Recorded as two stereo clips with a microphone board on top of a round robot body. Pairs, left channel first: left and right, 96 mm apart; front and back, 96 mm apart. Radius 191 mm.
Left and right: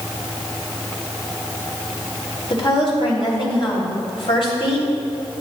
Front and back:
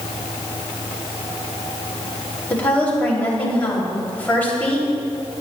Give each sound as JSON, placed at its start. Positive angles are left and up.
{"t": 2.5, "sound": "a woman speaking", "azimuth_deg": 75, "distance_m": 3.0}